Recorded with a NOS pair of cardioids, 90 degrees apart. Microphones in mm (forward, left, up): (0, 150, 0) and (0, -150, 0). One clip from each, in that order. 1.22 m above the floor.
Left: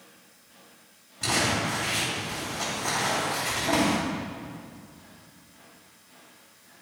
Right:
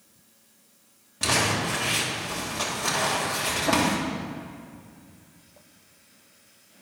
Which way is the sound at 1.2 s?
65° right.